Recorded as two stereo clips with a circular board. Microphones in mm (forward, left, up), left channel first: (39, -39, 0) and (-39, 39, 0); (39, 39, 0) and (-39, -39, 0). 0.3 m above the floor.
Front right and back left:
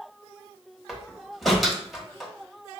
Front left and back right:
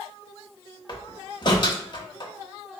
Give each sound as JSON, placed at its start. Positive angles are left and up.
{"t": 0.9, "sound": "a door slam", "azimuth_deg": 45, "distance_m": 0.9}